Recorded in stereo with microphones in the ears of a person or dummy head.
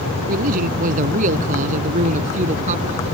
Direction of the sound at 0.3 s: 45° right (ahead or behind).